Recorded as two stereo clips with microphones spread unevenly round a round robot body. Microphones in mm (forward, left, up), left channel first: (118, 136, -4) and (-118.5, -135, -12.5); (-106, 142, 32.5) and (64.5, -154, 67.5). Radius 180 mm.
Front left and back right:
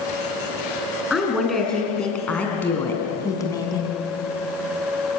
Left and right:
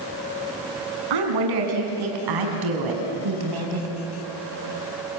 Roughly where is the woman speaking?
Ahead right.